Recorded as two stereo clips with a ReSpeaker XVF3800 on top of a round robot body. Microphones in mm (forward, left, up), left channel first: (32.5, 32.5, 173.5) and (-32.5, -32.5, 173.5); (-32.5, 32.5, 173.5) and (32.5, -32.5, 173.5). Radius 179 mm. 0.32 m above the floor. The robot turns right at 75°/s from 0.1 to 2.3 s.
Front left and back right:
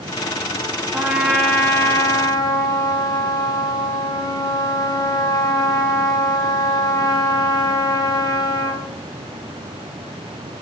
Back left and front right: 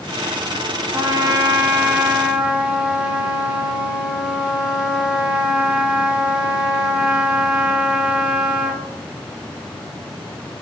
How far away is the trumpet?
About 1.7 m.